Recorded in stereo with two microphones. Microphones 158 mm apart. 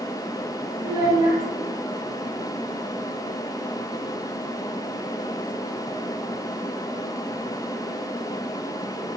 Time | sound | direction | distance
0.8 | a child speaking | 15° right (ahead or behind) | 0.8 m